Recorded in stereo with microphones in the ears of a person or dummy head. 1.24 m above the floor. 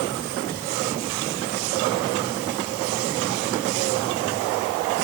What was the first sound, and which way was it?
Only background noise.